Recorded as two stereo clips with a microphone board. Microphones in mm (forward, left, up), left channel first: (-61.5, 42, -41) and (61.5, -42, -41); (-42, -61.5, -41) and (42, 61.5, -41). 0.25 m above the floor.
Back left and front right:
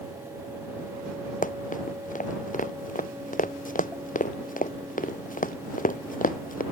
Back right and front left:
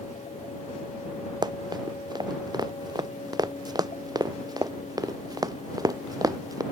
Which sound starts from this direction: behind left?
Running footsteps, at 1.4 s.